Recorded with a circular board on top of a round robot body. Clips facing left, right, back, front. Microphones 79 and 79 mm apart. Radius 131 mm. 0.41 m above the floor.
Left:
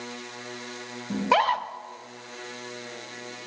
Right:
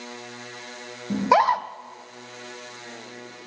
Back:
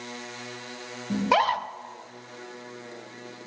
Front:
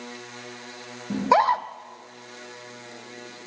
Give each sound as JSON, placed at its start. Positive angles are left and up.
{"t": 1.1, "sound": "a scream", "azimuth_deg": -40, "distance_m": 0.8}